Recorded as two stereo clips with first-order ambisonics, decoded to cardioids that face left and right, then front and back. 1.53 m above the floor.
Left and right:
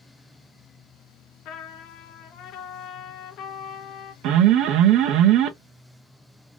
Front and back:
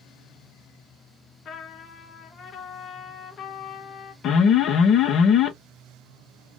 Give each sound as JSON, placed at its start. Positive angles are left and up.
{"t": 1.4, "sound": "a trumpet", "azimuth_deg": 55, "distance_m": 0.6}
{"t": 4.2, "sound": "an alarm", "azimuth_deg": -50, "distance_m": 0.6}